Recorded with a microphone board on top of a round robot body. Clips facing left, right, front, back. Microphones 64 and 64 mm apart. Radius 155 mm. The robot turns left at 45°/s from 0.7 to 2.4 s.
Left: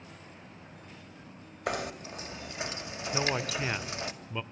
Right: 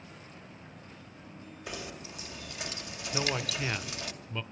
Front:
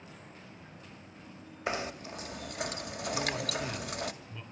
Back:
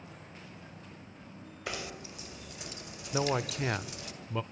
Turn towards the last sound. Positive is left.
turn(degrees=165)